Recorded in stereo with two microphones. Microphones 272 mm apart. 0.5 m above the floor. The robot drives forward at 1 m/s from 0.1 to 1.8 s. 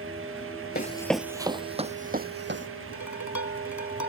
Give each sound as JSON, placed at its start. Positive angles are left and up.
{"t": 0.8, "sound": "running footsteps", "side_deg": 35}
{"t": 2.9, "sound": "dishes clattering", "side_deg": 80}